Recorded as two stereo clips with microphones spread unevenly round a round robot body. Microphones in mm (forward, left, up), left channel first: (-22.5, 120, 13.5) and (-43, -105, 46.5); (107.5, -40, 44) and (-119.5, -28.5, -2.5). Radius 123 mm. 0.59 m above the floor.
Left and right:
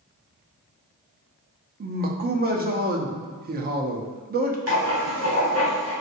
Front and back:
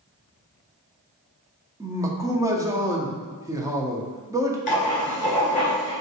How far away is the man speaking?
About 0.7 m.